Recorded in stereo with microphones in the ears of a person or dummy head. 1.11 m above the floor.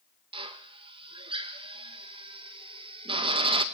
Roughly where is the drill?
Right.